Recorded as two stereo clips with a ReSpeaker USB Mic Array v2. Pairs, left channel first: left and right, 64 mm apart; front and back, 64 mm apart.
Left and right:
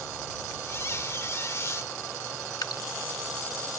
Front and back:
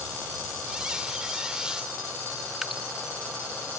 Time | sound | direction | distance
0.7 | a squeak | 105° left | ?
2.6 | dripping | 100° left | ?